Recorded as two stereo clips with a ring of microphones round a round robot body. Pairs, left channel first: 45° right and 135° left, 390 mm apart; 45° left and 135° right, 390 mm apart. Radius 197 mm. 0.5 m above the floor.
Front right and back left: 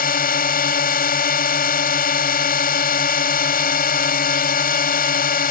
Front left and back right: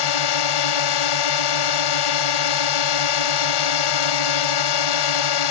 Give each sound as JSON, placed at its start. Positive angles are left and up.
{"t": 0.0, "sound": "a drone", "azimuth_deg": 25}